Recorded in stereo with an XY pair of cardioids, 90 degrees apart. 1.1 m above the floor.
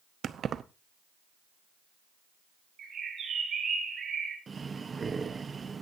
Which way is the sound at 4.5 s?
35° right.